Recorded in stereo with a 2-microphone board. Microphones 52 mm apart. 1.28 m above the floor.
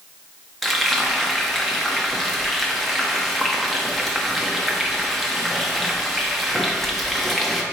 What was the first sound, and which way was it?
Frying, 5° left (ahead or behind).